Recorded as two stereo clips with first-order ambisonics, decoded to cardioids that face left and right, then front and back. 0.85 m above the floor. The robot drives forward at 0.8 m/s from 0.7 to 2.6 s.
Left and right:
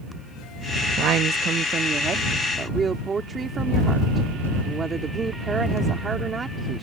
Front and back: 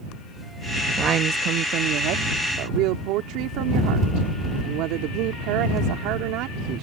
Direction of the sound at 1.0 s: 125° right.